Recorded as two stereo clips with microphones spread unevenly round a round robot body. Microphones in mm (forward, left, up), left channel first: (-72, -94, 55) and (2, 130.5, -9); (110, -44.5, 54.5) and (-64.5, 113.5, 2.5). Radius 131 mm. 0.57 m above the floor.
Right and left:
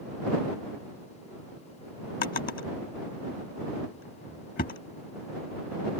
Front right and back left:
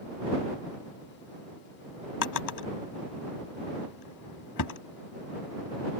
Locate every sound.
2.2 s a drawer: 50° right